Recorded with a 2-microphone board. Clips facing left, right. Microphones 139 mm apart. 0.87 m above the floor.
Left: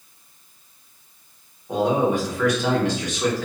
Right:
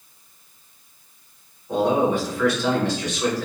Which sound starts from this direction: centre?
A man speaking, at 1.7 s.